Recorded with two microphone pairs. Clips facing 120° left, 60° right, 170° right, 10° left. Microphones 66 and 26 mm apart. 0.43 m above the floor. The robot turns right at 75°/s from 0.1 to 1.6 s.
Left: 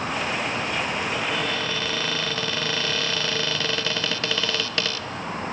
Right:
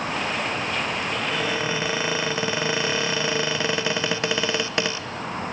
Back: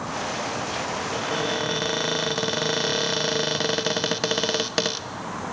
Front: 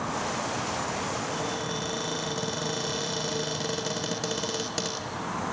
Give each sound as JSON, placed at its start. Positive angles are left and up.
{"t": 1.1, "sound": "a cupboard door", "azimuth_deg": -165, "distance_m": 0.8}